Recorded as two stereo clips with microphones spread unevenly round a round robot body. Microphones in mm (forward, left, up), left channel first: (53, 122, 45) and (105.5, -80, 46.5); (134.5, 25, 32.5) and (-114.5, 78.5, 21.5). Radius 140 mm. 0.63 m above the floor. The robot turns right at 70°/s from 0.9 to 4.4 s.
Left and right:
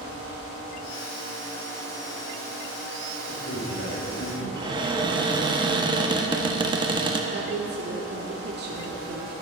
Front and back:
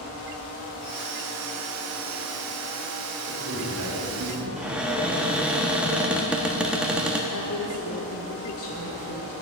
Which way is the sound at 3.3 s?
115° left.